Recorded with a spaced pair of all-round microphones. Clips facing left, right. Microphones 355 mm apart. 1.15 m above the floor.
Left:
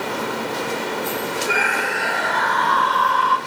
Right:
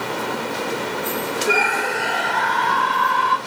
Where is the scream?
45° right (ahead or behind), 4 m; by 3.4 s 30° right (ahead or behind), 5.5 m.